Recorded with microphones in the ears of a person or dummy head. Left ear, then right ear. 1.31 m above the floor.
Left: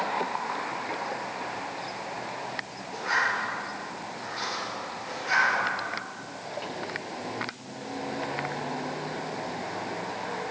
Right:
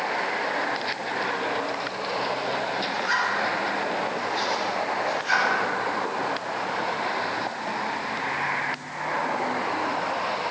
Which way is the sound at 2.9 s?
35° right (ahead or behind).